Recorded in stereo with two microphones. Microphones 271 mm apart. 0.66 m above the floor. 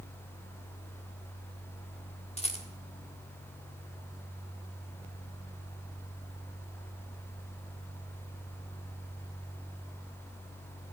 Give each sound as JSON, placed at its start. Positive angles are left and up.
{"t": 2.4, "sound": "a rattle", "side_deg": 25, "distance_m": 1.8}